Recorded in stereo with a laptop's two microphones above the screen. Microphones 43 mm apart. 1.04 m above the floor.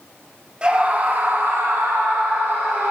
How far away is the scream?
About 1.7 m.